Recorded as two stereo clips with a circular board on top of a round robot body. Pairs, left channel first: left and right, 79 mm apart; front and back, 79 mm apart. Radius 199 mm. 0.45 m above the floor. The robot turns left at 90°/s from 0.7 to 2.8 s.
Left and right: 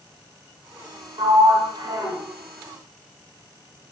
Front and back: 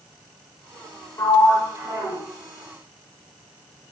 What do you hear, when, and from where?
1.2 s a sliding door: 60° right, 0.7 m; by 2.2 s 155° right, 0.7 m